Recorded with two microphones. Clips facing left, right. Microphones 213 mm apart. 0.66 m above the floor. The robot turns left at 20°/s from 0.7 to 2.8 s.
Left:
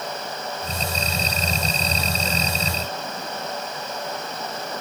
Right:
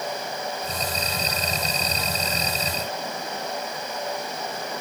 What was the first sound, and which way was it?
Only background noise.